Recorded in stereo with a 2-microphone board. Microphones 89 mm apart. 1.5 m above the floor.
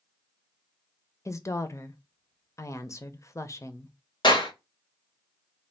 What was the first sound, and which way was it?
A woman speaking, 35° left (ahead or behind).